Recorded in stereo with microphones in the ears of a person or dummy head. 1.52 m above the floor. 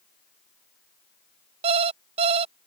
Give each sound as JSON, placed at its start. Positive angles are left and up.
{"t": 1.6, "sound": "an alarm clock", "side_deg": -40}